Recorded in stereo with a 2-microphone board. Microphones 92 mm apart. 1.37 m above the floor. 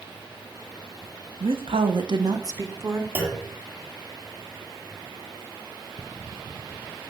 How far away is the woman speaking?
About 1.4 m.